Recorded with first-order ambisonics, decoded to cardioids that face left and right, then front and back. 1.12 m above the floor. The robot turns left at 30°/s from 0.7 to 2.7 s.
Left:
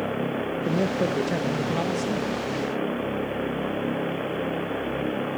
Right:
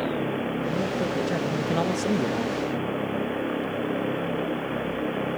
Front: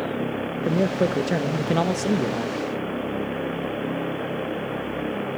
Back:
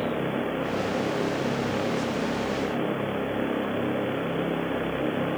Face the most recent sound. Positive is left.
turn(degrees=-35)